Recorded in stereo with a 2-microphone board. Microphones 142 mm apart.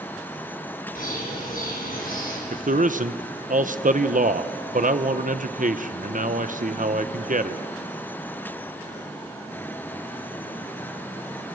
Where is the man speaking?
60° right (ahead or behind), 1.0 m.